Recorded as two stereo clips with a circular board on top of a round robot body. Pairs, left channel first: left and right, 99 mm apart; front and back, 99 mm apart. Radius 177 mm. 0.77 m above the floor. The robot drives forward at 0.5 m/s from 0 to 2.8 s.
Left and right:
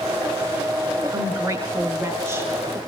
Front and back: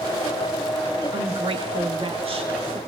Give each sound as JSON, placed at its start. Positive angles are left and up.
{"t": 1.1, "sound": "a woman speaking", "azimuth_deg": -145, "distance_m": 1.8}